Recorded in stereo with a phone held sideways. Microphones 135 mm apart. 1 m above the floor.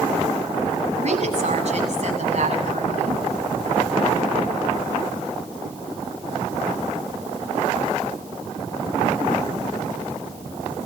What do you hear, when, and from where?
1.0 s a woman speaking: 55° right (ahead or behind), 7 m